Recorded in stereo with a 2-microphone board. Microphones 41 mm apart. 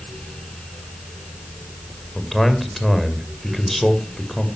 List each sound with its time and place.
2.1 s a man speaking: 5° left (ahead or behind), 1.9 m